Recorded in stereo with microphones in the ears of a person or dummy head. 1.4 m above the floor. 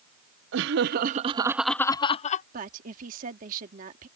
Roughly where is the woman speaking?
Right.